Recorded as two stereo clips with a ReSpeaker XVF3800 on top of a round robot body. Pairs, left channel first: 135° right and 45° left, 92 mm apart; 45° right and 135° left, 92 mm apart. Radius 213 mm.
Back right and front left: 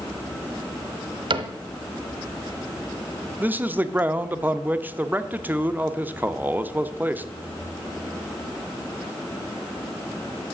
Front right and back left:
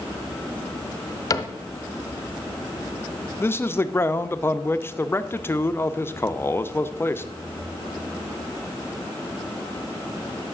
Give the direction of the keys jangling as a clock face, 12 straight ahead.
I don't hear keys jangling.